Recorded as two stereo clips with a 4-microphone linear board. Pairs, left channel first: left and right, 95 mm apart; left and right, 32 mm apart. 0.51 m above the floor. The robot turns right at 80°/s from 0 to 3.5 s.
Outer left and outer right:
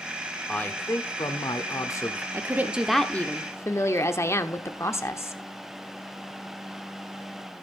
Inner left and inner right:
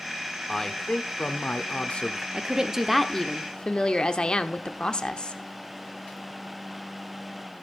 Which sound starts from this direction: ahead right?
A woman speaking, at 2.3 s.